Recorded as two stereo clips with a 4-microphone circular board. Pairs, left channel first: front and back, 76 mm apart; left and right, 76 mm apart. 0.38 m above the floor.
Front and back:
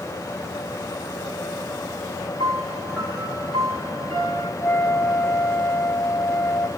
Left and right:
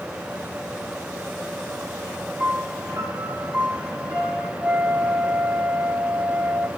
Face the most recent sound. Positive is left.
turn(degrees=-30)